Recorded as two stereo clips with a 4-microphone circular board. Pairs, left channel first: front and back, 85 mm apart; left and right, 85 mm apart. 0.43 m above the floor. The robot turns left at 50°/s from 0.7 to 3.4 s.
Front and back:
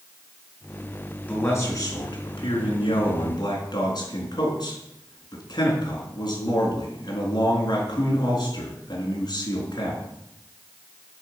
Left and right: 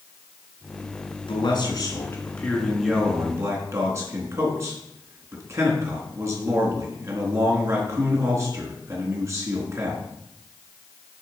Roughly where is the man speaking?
Left.